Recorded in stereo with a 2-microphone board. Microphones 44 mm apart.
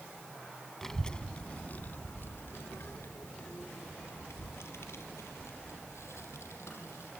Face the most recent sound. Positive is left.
turn(degrees=85)